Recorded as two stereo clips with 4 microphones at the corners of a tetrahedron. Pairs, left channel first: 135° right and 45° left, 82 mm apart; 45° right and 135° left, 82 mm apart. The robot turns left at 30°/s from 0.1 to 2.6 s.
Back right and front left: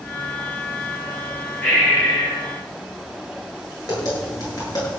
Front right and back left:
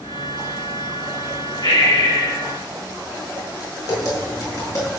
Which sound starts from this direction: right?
Tapping, at 3.9 s.